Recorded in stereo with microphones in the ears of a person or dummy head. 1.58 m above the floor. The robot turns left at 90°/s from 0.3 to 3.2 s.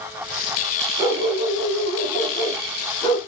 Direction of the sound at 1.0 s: 10° right.